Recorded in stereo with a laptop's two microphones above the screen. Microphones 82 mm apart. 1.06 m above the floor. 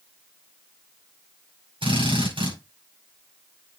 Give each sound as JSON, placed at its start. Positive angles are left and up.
{"t": 1.8, "sound": "a drill", "side_deg": -85, "distance_m": 5.5}